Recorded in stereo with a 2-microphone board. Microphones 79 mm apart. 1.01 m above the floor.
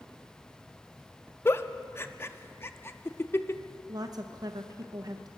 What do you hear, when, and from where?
1.4 s a giggle: 30° left (ahead or behind), 0.5 m
3.9 s a woman speaking: 50° right (ahead or behind), 0.8 m